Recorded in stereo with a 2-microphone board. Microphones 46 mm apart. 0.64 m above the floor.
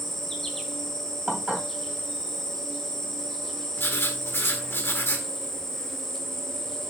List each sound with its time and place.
0.0 s an insect: 5° left (ahead or behind), 1.3 m
1.3 s dishes clattering: 15° right (ahead or behind), 3 m
3.8 s writing: 60° left (ahead or behind), 1.3 m